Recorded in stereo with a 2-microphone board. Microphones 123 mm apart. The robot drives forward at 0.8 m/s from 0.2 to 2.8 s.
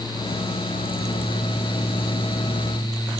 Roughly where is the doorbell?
I don't hear a doorbell.